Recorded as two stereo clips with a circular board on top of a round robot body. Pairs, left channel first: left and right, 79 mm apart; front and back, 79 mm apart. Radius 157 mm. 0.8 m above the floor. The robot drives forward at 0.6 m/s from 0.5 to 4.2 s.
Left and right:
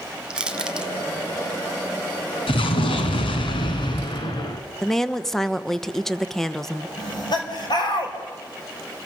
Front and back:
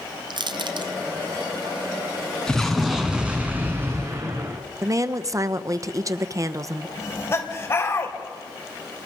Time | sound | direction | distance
0.3 | crushing | 170° right | 1.2 m
2.5 | an explosion | 80° left | 1.4 m
4.8 | a woman speaking | 175° left | 1.1 m
7.0 | laughter | 60° left | 4 m